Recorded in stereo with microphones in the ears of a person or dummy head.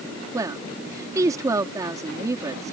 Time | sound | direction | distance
0.3 | a woman speaking | 25° right (ahead or behind) | ?